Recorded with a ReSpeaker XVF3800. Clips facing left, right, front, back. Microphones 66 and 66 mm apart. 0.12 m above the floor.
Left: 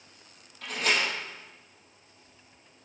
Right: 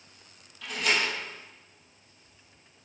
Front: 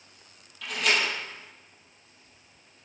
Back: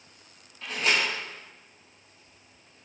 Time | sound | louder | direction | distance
0.6 | a door slam | even, even | 125° left | 2.5 m